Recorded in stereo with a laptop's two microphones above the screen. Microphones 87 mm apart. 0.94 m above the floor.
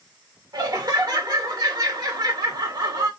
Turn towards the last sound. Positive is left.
turn(degrees=-50)  # may be behind; listen again after turning